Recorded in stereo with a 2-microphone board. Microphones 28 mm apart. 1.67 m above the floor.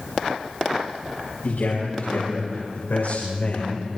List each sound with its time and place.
1.4 s a man speaking: 85° left, 7.5 m; by 4.0 s 80° left, 4.5 m